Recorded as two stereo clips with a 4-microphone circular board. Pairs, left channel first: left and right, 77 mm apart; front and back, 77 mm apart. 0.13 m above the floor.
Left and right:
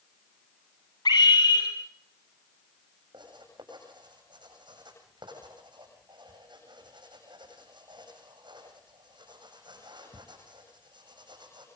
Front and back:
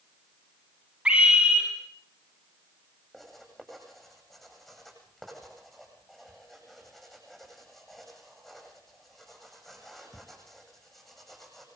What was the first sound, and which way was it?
A scream, 105° left.